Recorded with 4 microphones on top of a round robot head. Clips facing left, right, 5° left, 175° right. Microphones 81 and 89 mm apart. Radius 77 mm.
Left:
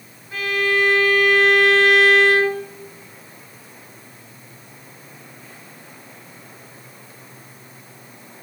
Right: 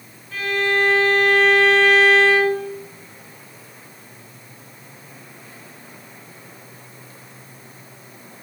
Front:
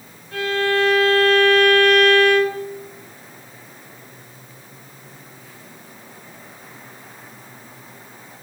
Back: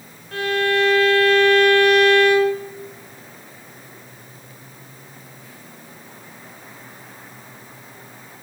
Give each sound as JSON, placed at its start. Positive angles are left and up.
{"t": 0.3, "sound": "a violin", "azimuth_deg": 165, "distance_m": 6.0}